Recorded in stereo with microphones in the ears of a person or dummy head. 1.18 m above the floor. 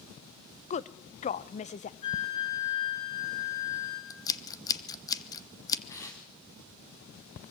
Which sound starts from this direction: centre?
Scissors, at 4.1 s.